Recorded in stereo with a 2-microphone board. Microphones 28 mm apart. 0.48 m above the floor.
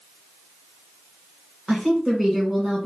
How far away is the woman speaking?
About 1.7 m.